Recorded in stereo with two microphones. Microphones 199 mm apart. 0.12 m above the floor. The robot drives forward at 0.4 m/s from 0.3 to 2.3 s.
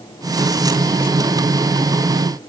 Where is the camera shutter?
No camera shutter in this recording.